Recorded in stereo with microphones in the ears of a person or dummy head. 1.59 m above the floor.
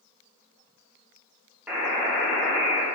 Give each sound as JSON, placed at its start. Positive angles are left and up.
{"t": 1.7, "sound": "a buzzer", "side_deg": -10, "distance_m": 0.7}